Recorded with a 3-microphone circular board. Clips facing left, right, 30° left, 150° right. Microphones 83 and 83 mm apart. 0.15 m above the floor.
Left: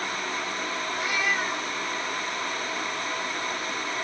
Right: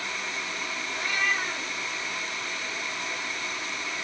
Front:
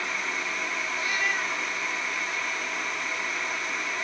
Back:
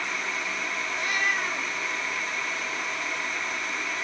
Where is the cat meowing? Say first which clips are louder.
Even, back 2 dB; 170° left, 1.6 m.